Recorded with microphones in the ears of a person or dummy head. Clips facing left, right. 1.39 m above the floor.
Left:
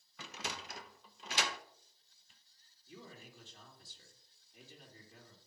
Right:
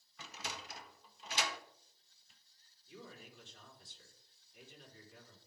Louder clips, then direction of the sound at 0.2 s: Left 3 dB; 55° left (ahead or behind).